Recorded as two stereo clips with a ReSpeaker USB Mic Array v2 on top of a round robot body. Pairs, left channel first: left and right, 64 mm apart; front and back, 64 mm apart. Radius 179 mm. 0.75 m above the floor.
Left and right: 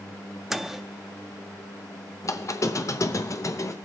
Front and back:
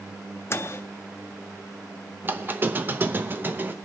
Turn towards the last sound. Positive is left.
turn(degrees=120)